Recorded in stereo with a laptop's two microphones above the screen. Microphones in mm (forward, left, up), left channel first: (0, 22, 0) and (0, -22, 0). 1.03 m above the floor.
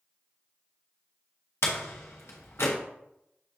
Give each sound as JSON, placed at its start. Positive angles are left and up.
{"t": 1.6, "sound": "a door slam", "side_deg": 70, "distance_m": 0.7}